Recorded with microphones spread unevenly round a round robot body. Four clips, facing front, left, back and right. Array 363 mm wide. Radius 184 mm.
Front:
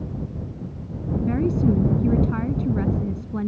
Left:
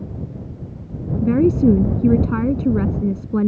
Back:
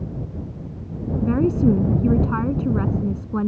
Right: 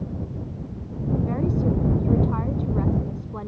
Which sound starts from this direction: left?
A woman speaking, at 1.2 s.